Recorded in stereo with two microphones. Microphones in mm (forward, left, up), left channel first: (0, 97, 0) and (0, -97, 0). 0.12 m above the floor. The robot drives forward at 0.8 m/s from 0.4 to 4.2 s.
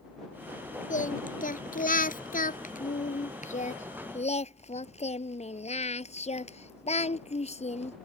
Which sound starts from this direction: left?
Singing, at 0.9 s.